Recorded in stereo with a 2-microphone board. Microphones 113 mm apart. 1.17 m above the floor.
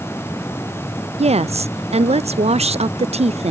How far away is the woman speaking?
About 0.7 m.